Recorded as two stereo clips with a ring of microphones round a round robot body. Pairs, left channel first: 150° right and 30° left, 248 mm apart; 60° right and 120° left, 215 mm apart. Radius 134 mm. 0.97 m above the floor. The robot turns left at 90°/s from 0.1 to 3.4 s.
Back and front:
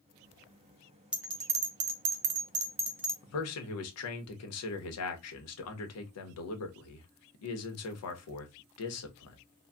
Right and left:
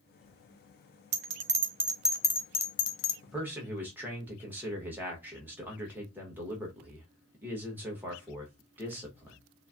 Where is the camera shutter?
I don't hear a camera shutter.